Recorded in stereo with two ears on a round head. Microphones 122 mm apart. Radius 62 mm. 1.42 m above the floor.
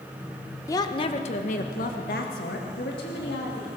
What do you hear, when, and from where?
0.7 s a woman speaking: 20° left (ahead or behind), 1.0 m; by 3.7 s 90° left, 3 m